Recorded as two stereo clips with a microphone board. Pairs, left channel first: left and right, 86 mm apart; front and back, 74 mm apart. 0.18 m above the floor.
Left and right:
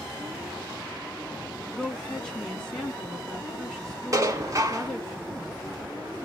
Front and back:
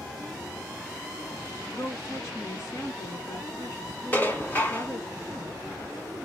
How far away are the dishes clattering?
About 1.1 m.